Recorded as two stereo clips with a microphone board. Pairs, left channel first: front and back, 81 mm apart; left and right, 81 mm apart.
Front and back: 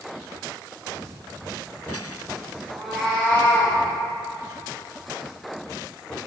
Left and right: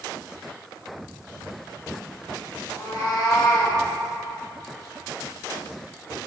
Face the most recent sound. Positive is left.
turn(degrees=50)